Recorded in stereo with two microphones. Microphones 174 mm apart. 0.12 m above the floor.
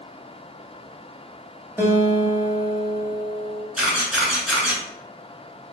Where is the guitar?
15° right (ahead or behind), 0.9 m.